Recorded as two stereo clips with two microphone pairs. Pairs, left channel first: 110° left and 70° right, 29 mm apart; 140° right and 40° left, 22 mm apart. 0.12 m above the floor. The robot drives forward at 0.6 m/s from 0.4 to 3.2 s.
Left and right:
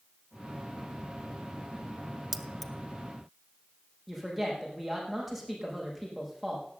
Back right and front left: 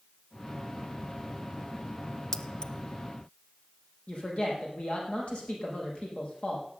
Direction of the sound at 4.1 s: 160° right.